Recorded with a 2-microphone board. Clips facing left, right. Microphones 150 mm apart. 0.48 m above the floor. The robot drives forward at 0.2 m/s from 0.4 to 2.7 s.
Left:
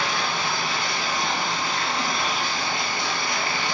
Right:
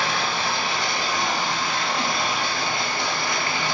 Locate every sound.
0.0 s running water: 65° right (ahead or behind), 0.7 m